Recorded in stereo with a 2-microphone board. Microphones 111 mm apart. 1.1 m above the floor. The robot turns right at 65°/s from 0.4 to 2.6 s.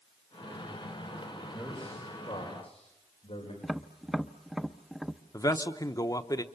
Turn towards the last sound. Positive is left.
turn(degrees=30)  # may be behind; listen again after turning